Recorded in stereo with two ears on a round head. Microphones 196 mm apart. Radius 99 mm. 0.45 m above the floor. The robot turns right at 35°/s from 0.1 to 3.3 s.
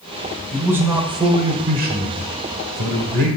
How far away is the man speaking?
About 1.3 m.